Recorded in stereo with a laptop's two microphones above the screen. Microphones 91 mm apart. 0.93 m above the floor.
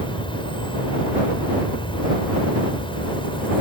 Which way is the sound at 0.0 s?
75° left (ahead or behind).